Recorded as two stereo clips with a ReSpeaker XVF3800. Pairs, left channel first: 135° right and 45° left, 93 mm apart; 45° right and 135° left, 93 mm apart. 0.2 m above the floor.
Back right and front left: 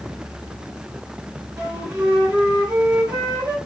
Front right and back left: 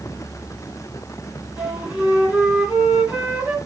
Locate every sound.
1.6 s a flute: 65° left, 1.9 m